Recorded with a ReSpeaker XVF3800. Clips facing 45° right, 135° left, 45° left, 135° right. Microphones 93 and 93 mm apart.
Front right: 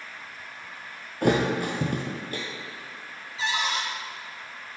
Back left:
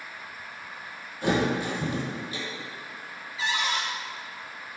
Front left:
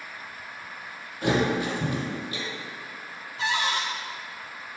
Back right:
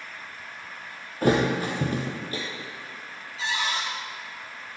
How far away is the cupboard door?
About 3.5 m.